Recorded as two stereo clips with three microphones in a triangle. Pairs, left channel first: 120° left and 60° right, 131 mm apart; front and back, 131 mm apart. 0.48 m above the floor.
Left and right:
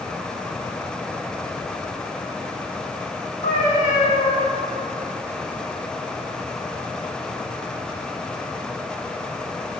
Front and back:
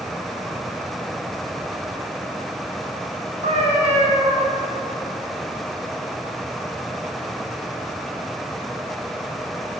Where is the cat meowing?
145° left, 2.5 m.